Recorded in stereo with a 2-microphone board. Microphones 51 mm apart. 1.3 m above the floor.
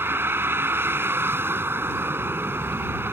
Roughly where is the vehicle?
Right.